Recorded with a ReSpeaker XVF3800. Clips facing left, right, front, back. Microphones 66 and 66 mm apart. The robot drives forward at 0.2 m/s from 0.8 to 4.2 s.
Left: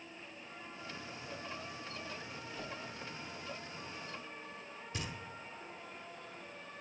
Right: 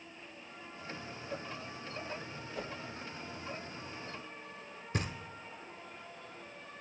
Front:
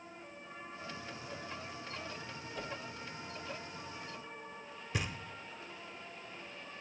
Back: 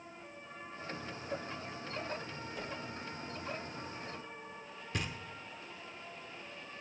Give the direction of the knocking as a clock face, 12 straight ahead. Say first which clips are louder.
Right 6 dB, front 1 dB; 3 o'clock.